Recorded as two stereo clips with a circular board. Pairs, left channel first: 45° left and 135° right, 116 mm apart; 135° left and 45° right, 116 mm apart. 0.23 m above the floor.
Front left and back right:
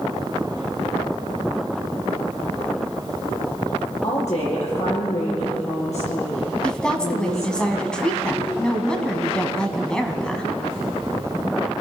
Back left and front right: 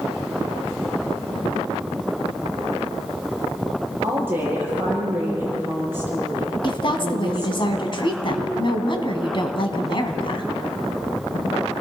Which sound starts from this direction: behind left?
A woman speaking, at 6.6 s.